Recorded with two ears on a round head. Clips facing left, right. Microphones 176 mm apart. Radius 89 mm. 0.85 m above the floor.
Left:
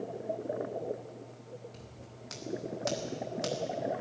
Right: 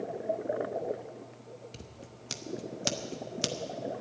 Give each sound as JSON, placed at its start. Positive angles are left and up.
{"t": 1.7, "sound": "scissors", "side_deg": -35, "distance_m": 0.9}